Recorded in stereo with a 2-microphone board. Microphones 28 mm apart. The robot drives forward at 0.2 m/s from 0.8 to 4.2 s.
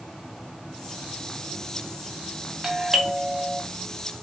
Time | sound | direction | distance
0.0 | an insect | 20° left (ahead or behind) | 4 m
2.6 | a doorbell | 15° right (ahead or behind) | 1.6 m